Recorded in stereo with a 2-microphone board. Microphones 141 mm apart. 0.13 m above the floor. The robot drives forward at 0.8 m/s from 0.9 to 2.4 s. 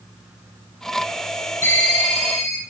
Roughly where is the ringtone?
Left.